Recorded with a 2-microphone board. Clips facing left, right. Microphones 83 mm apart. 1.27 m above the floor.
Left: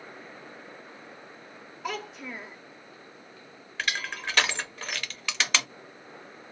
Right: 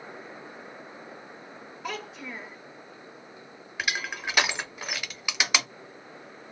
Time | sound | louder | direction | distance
1.8 | a child speaking | left 1 dB | centre (ahead or behind) | 0.8 m
3.8 | crushing | right 1 dB | 15° right (ahead or behind) | 0.5 m